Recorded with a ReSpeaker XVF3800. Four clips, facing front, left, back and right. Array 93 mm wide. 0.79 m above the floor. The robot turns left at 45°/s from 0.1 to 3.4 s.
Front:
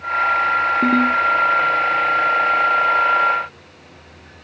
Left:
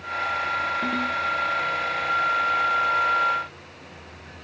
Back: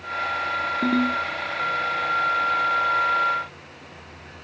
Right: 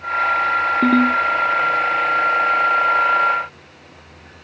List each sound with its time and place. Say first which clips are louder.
0.8 s a ringtone: right 11 dB, front 4 dB; 70° right, 1.0 m; by 1.2 s 85° right, 1.0 m